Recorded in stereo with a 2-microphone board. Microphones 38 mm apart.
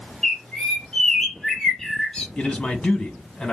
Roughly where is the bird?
Centre.